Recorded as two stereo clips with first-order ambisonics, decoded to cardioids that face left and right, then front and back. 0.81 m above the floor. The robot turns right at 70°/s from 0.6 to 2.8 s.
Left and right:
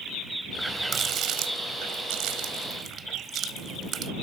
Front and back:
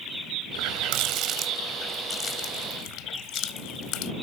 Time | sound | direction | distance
0.5 | a running tap | straight behind | ?